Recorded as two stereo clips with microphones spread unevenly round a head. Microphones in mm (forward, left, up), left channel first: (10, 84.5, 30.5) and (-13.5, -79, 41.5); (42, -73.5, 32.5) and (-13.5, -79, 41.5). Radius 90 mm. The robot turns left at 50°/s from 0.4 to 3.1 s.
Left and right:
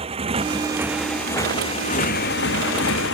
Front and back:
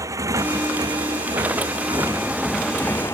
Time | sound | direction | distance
0.0 | a motorcycle | 155° right | ?